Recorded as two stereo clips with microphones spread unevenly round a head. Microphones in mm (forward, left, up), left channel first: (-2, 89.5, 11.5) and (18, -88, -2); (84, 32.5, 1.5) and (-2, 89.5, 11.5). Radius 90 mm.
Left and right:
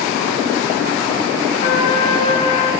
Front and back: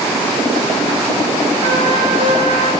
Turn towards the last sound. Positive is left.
turn(degrees=150)